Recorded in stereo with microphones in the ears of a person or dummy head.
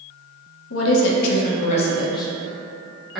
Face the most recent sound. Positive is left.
turn(degrees=0)  # may be behind; listen again after turning